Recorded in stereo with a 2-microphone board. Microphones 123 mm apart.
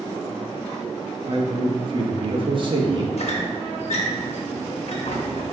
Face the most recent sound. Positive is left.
turn(degrees=60)  # may be behind; listen again after turning